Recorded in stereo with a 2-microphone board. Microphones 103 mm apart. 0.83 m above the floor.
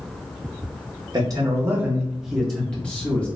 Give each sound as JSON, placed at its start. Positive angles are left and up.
{"t": 1.1, "sound": "a man speaking", "side_deg": -40, "distance_m": 0.7}